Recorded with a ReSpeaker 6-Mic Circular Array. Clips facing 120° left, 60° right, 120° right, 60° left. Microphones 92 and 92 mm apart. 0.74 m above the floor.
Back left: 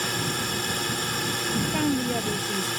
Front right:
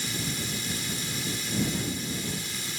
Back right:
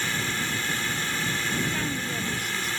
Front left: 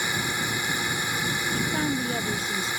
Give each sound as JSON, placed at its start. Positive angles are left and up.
{"t": 0.0, "sound": "a drone", "azimuth_deg": 135}
{"t": 1.5, "sound": "a woman speaking", "azimuth_deg": 120}